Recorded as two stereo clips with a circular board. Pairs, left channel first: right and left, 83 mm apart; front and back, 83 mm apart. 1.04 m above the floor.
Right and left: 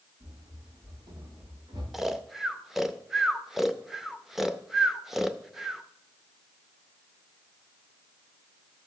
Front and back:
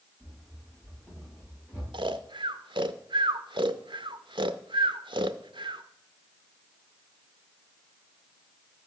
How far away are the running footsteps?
About 8 m.